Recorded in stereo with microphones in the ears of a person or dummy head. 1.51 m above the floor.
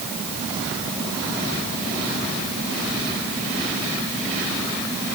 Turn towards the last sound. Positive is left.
No sound to turn to.